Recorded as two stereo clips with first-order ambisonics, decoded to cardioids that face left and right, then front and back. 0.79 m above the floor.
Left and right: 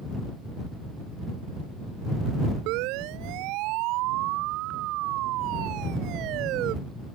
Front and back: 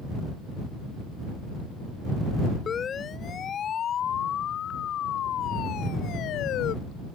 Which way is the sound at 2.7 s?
65° right.